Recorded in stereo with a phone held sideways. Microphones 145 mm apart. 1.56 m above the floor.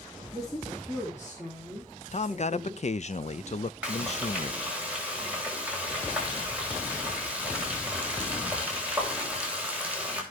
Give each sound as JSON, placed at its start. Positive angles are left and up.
{"t": 0.3, "sound": "a woman speaking", "side_deg": 25, "distance_m": 4.0}
{"t": 2.1, "sound": "a man speaking", "side_deg": 50, "distance_m": 0.5}
{"t": 3.8, "sound": "frying", "side_deg": -10, "distance_m": 3.5}